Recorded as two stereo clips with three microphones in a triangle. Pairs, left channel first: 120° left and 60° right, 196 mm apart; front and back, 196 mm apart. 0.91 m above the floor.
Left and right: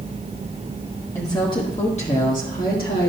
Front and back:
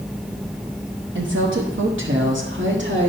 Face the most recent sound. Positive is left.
turn(degrees=155)